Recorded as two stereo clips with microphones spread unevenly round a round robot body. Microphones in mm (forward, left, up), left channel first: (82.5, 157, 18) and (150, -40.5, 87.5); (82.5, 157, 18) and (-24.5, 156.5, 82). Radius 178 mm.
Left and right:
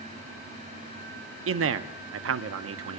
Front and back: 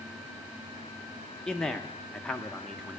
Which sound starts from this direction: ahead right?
A man speaking, at 1.5 s.